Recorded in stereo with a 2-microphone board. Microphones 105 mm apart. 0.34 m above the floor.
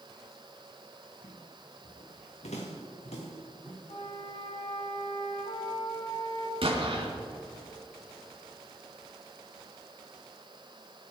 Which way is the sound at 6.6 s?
60° right (ahead or behind).